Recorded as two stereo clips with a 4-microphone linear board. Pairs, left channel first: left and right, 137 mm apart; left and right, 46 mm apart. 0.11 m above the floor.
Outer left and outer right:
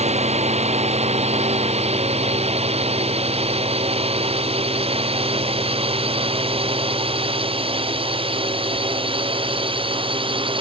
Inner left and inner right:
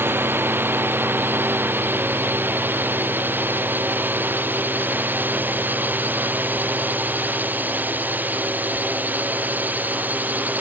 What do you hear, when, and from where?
0.0 s a drone: 50° right (ahead or behind); by 10.6 s 40° right (ahead or behind)